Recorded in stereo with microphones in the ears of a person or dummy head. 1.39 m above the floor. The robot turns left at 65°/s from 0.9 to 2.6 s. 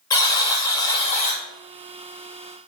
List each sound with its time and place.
0.1 s a buzzer: 160° left, 0.7 m; by 1.4 s 125° left, 0.7 m